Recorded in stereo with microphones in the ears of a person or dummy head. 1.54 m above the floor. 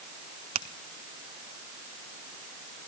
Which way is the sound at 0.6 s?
40° right (ahead or behind).